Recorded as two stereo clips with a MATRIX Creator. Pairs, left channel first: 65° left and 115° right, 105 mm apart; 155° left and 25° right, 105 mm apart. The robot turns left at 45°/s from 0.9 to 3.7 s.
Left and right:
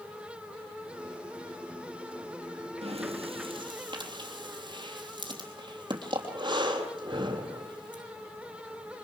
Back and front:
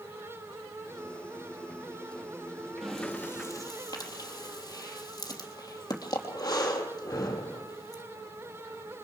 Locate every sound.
2.8 s breathing: 110° right, 3 m; by 8.0 s 150° right, 3 m